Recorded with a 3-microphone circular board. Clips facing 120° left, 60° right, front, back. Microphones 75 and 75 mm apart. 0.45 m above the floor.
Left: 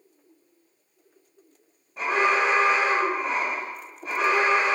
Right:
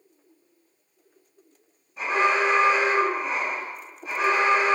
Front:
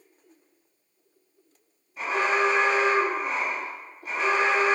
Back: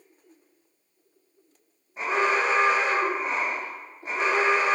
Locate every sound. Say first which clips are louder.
2.0 s an alarm: even, even; 130° left, 1.6 m